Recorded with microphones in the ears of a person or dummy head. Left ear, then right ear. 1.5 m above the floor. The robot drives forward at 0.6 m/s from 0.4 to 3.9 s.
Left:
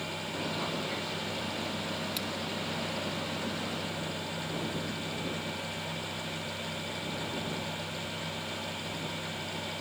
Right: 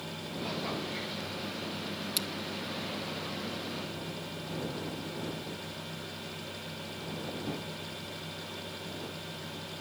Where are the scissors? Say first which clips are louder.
Right 2 dB; 5° right (ahead or behind), 1.1 m.